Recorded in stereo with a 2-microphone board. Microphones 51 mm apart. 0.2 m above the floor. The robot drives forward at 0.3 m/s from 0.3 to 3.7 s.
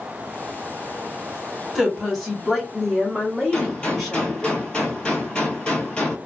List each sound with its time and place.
1.8 s a woman speaking: centre (ahead or behind), 1.4 m
3.5 s a gunshot: 20° left (ahead or behind), 1.1 m